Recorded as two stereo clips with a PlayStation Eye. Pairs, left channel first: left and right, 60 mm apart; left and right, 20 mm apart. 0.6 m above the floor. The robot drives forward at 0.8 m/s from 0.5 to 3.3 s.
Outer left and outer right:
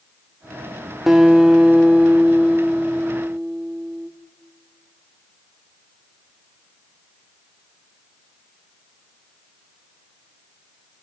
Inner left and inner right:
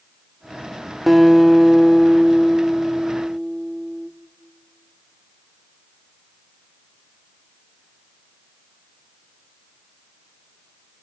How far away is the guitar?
About 1.0 m.